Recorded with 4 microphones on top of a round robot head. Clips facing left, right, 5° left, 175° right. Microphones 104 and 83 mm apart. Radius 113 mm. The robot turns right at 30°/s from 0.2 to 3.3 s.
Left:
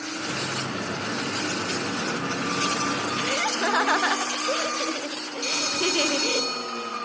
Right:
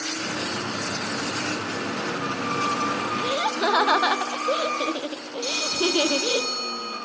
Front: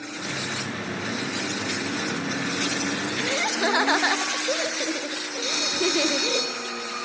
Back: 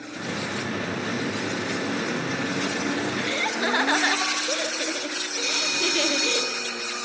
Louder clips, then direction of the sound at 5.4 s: Right 2 dB, front 3 dB; 55° left.